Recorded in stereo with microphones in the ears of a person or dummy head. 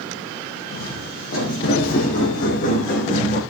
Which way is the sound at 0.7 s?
55° left (ahead or behind).